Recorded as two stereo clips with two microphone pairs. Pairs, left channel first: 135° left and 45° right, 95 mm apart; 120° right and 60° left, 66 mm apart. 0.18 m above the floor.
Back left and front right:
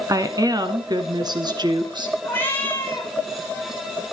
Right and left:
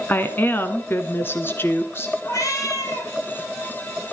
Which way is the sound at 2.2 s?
155° right.